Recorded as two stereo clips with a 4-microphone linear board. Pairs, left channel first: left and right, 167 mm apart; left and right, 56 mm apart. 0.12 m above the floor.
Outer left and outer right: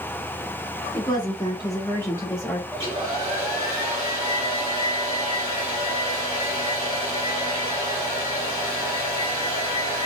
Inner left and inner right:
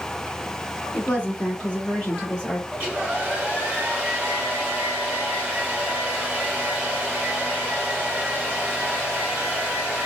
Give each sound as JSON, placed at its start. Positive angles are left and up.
{"t": 0.9, "sound": "a woman speaking", "side_deg": 25, "distance_m": 1.4}
{"t": 2.7, "sound": "a hair dryer", "side_deg": -20, "distance_m": 1.6}